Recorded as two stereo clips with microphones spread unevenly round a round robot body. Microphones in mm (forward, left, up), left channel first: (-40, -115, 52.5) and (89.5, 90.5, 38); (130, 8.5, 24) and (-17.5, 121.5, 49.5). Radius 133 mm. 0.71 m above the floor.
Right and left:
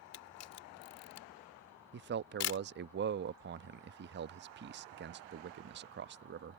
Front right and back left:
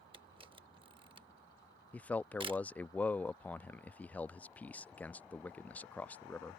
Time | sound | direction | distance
0.1 | a camera shutter | 145° right | ?
1.9 | a man speaking | 35° left | ?